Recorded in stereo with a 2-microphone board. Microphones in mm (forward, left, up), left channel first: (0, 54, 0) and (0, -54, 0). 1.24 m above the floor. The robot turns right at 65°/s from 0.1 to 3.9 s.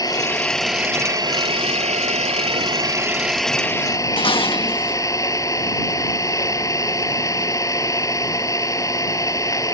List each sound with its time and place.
0.0 s an engine running: 145° left; by 9.7 s 35° left
4.2 s dishes clattering: 55° left (ahead or behind)